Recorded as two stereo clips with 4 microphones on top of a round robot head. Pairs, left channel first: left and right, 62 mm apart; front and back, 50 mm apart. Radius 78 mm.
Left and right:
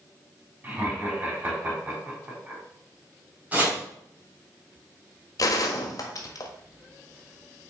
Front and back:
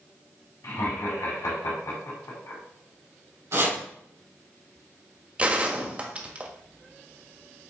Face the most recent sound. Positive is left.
turn(degrees=115)